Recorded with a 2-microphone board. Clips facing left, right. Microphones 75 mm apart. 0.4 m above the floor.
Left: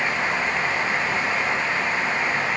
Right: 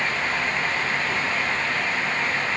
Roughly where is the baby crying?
No baby crying in this recording.